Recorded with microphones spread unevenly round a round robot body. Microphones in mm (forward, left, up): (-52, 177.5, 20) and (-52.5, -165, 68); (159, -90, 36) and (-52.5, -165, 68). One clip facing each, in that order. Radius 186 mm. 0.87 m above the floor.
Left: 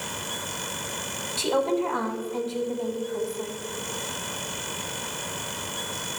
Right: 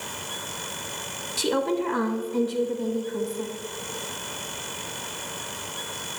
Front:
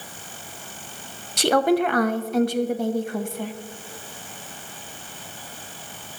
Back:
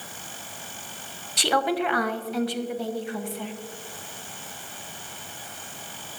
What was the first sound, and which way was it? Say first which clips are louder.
A woman speaking: even, front 6 dB; 20° right.